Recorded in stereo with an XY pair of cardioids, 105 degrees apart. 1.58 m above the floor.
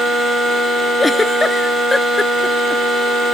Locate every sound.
1.0 s a giggle: 20° left